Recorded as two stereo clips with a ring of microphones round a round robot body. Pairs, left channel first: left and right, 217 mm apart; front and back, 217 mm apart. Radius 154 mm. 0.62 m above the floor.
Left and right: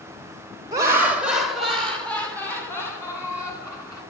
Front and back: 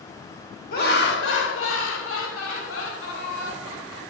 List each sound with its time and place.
0.7 s laughter: 25° right, 1.0 m; by 4.0 s 15° left, 3 m